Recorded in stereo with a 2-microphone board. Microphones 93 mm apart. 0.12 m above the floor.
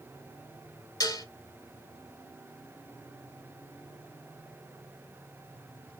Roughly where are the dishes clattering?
Left.